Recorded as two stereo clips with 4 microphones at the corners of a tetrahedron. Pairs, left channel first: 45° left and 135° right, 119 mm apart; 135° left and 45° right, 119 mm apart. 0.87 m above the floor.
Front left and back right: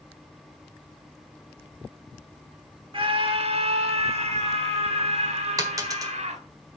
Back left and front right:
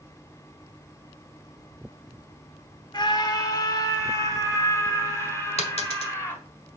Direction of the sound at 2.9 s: 175° right.